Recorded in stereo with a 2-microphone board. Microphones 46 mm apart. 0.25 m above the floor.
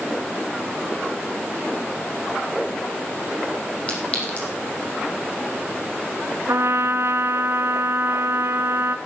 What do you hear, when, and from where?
3.9 s a clink: 25° left (ahead or behind), 6 m
6.5 s a trumpet: 75° right (ahead or behind), 1.2 m